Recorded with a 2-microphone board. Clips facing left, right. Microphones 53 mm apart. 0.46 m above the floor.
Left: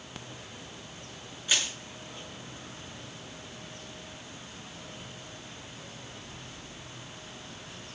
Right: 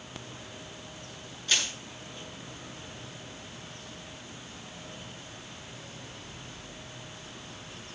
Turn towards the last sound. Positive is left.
turn(degrees=15)  # may be behind; listen again after turning